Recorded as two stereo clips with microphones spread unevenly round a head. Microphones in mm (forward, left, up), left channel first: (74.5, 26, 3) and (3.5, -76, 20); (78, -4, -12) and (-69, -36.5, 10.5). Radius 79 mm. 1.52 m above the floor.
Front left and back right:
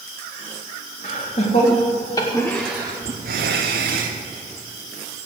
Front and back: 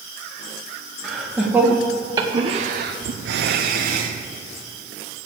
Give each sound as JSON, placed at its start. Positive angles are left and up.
{"t": 1.0, "sound": "laughter", "azimuth_deg": 105, "distance_m": 2.0}